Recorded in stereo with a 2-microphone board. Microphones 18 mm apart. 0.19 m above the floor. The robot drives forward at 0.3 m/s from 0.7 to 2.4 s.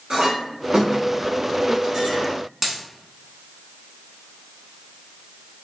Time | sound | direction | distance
0.1 | a clink | 45° right (ahead or behind) | 1.4 m
2.6 | a dropped coin | 10° right (ahead or behind) | 0.9 m